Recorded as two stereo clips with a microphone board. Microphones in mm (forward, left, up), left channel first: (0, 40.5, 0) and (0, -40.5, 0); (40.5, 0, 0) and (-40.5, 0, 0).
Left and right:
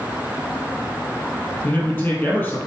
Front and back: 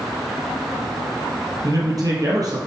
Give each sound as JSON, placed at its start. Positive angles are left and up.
{"t": 1.6, "sound": "a man speaking", "azimuth_deg": 150, "distance_m": 3.0}